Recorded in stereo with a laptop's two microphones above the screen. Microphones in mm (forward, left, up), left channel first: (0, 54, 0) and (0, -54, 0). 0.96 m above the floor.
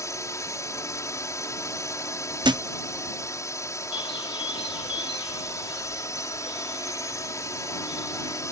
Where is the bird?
50° left (ahead or behind).